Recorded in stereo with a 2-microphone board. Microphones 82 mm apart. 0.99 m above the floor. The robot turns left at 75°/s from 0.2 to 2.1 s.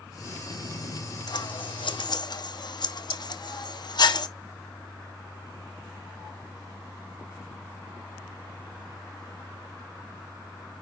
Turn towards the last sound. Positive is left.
turn(degrees=60)  # may be behind; listen again after turning